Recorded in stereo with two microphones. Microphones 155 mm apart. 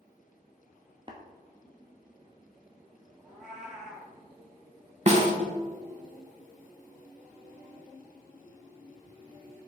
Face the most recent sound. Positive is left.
turn(degrees=-50)  # may be behind; listen again after turning